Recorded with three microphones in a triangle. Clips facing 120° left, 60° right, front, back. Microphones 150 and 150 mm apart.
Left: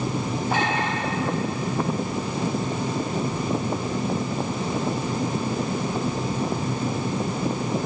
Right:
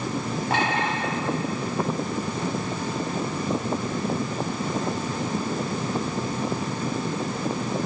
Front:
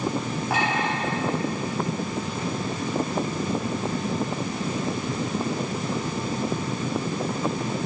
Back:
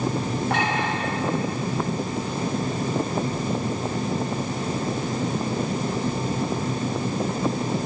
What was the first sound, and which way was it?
A clink, 85° right.